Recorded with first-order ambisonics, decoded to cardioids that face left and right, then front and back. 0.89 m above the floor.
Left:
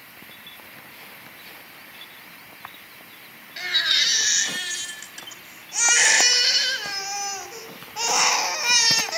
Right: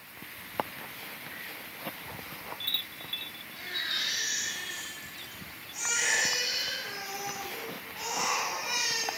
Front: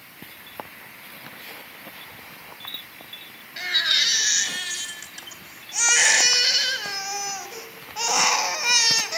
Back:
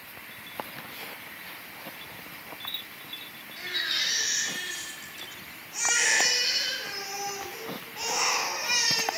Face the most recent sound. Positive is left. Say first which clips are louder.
# left 12 dB, front 8 dB
turn(degrees=55)